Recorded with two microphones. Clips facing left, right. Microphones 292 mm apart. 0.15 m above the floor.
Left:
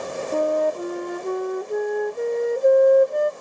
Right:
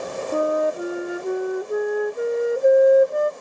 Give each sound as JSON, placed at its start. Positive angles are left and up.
{"t": 0.3, "sound": "a flute", "side_deg": -5}